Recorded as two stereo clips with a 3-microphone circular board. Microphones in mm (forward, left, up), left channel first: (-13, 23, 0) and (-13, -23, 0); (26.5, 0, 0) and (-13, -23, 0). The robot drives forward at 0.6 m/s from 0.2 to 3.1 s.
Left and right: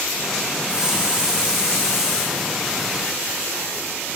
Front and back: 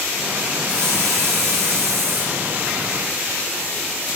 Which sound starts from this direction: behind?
A hiss, at 0.7 s.